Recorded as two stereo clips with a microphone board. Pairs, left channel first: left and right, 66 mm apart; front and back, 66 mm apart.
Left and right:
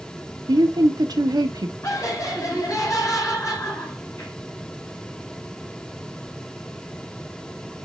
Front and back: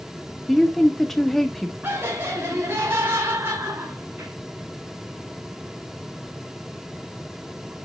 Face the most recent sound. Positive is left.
turn(degrees=125)